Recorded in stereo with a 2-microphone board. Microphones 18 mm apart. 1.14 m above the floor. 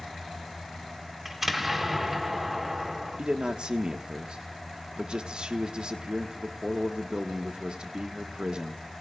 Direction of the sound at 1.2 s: 10° right (ahead or behind).